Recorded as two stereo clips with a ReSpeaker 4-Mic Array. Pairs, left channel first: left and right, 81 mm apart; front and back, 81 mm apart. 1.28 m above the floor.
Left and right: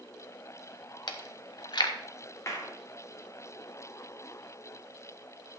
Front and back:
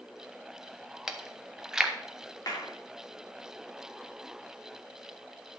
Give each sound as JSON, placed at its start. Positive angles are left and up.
{"t": 1.1, "sound": "chewing", "azimuth_deg": 100, "distance_m": 1.1}
{"t": 2.5, "sound": "a clap", "azimuth_deg": 40, "distance_m": 3.0}